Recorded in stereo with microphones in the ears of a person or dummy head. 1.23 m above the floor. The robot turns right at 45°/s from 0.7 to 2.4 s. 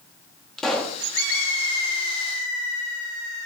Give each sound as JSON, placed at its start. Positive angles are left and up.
{"t": 0.6, "sound": "a pop", "side_deg": 0, "distance_m": 1.0}